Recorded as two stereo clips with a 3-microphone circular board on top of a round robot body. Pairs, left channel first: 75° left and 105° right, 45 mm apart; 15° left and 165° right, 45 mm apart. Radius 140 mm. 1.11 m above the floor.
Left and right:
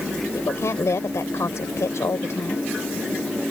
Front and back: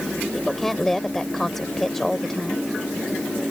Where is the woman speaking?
100° left.